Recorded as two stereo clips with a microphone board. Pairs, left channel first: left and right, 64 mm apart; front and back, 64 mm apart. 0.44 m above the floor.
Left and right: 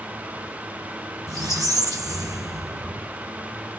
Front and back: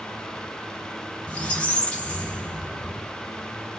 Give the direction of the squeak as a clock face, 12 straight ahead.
2 o'clock.